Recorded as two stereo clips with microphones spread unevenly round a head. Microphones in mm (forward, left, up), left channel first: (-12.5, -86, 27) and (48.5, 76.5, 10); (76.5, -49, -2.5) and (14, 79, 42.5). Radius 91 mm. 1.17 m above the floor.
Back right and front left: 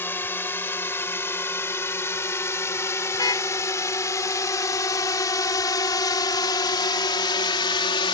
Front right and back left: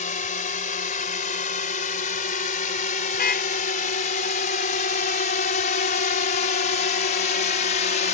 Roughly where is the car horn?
Ahead right.